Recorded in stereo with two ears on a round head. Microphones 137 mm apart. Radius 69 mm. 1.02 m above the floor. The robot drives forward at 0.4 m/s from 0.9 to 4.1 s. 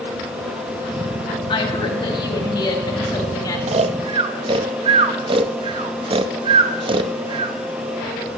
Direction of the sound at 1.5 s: 35° left (ahead or behind).